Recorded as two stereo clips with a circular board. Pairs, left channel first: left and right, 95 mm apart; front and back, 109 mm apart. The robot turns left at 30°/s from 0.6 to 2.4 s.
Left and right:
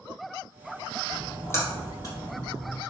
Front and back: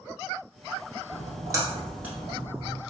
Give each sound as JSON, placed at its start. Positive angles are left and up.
{"t": 1.1, "sound": "a splash", "azimuth_deg": 145, "distance_m": 1.3}